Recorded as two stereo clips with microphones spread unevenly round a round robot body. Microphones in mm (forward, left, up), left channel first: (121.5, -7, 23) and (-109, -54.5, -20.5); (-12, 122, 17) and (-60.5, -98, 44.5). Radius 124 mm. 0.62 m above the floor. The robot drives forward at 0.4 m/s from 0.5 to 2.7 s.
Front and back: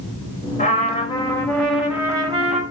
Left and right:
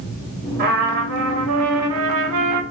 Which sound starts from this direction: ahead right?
A trumpet, at 0.6 s.